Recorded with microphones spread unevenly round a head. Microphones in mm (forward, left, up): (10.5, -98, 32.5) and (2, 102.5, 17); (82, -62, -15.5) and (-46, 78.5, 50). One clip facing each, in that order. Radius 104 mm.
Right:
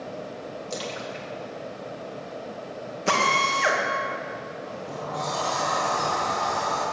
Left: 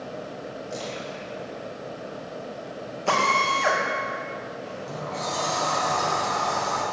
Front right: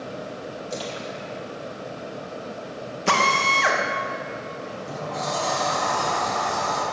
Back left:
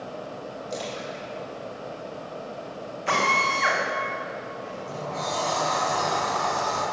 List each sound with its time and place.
0.7 s a splash: 130° right, 2.5 m
3.1 s a drill: 20° right, 2 m
4.6 s a sliding door: 30° left, 4.5 m